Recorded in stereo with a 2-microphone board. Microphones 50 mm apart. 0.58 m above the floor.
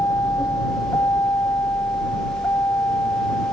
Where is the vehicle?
80° left; by 3.5 s 60° left (ahead or behind).